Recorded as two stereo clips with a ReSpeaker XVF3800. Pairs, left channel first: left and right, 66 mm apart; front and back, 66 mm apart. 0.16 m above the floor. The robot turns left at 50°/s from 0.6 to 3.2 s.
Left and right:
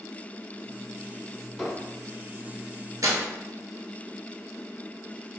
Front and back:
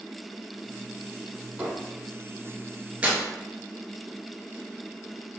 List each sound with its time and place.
1.6 s a squeak: 170° right, 1.0 m; by 1.7 s 175° right, 1.0 m
3.0 s tearing paper: 110° right, 0.7 m; by 3.2 s 120° right, 0.7 m